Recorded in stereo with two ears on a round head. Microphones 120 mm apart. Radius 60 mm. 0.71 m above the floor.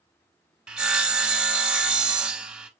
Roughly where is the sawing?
Centre.